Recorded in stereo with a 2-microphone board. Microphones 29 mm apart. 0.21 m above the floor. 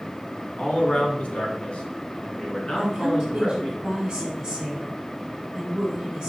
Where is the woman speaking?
15° right (ahead or behind), 1.7 m.